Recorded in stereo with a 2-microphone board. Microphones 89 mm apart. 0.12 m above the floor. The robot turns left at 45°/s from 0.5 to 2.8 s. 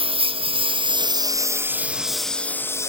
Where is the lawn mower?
80° right; by 2.9 s 30° left (ahead or behind).